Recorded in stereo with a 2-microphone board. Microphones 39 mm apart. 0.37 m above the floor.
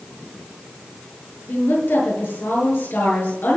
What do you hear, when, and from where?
1.5 s a woman speaking: 65° left (ahead or behind), 7.5 m